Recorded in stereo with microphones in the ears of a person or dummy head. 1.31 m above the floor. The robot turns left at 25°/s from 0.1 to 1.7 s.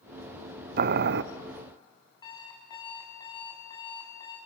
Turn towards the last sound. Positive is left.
turn(degrees=30)  # may be behind; listen again after turning